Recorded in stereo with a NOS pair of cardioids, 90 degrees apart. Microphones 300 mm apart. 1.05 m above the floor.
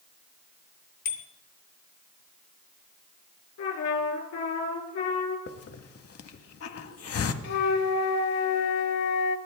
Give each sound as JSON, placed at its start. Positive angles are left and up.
{"t": 1.1, "sound": "a bicycle bell", "azimuth_deg": 65, "distance_m": 2.5}
{"t": 3.6, "sound": "a trumpet", "azimuth_deg": 65, "distance_m": 4.0}
{"t": 5.5, "sound": "a hiss", "azimuth_deg": 55, "distance_m": 1.4}
{"t": 7.4, "sound": "a flute", "azimuth_deg": 65, "distance_m": 1.7}